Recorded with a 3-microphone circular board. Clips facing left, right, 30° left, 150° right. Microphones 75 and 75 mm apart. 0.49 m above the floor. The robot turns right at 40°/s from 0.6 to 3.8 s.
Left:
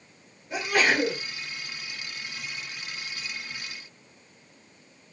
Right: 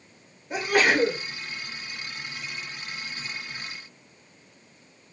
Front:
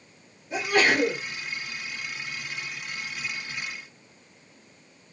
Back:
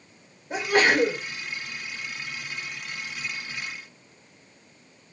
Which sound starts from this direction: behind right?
A sneeze, at 0.5 s.